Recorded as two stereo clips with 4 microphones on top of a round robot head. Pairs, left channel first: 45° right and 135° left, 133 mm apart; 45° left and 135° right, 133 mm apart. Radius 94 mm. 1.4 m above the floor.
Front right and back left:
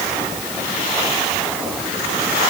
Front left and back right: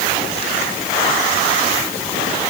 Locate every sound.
Only background noise.